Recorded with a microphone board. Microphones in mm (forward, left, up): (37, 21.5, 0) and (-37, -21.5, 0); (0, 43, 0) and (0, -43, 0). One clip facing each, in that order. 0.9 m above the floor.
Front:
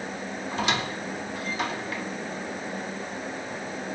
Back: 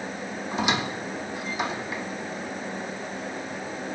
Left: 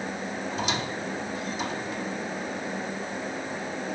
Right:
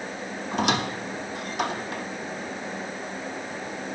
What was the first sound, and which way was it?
A squeak, 75° right.